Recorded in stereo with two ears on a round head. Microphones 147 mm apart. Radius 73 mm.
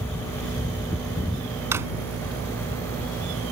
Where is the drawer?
15° right (ahead or behind).